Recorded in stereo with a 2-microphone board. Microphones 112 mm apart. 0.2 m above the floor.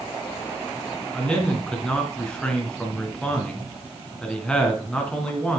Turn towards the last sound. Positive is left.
turn(degrees=5)  # may be behind; listen again after turning